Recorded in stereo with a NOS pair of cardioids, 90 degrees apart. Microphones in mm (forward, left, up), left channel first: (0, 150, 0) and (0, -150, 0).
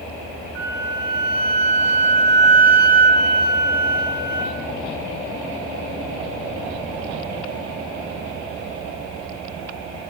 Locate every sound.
0.6 s a flute: 5° right, 0.9 m